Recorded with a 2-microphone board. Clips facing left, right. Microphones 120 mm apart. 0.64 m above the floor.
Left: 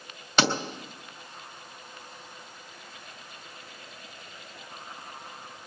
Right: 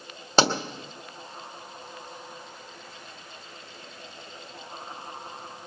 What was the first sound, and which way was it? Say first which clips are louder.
A pop: right 3 dB; 35° right (ahead or behind).